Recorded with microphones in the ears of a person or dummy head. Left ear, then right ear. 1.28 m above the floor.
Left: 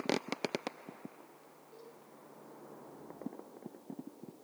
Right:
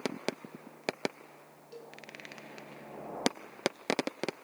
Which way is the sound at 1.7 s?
65° right (ahead or behind).